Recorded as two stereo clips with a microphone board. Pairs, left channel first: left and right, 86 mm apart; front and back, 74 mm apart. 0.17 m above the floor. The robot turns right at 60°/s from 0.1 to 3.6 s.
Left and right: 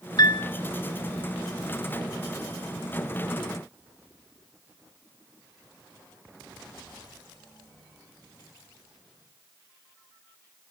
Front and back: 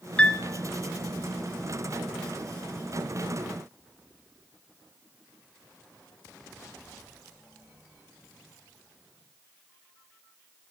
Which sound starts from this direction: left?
A piano, at 0.2 s.